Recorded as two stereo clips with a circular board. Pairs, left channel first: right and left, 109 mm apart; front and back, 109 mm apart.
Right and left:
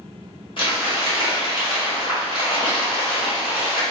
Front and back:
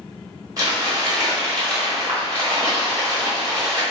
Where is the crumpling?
125° right, 1.2 m.